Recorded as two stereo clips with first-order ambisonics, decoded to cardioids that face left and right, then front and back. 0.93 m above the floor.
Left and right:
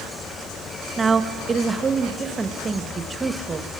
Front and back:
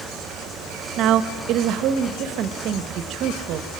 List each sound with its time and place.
1.0 s a woman speaking: 160° right, 1.2 m